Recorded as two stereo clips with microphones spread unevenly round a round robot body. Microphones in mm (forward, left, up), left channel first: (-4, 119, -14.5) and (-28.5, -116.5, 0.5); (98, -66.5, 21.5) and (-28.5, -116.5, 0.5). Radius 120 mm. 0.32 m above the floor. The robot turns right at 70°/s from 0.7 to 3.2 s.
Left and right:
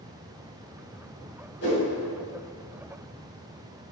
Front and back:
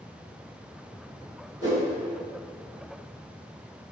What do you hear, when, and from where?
1.6 s a whoosh: 60° left, 2 m; by 1.8 s 80° left, 2 m